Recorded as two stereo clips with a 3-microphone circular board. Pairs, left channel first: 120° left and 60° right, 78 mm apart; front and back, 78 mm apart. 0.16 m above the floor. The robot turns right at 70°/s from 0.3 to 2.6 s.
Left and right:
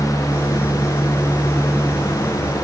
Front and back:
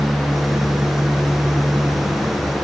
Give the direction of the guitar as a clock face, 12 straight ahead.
No guitar in this recording.